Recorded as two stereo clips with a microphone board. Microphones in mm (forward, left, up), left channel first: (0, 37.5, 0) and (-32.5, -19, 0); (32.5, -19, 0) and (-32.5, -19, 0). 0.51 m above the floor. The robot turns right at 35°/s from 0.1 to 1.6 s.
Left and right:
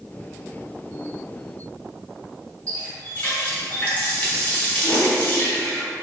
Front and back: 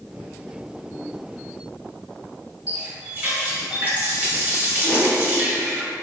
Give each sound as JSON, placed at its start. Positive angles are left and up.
{"t": 2.7, "sound": "a running tap", "azimuth_deg": 120, "distance_m": 0.9}
{"t": 4.8, "sound": "a whoosh", "azimuth_deg": 120, "distance_m": 1.4}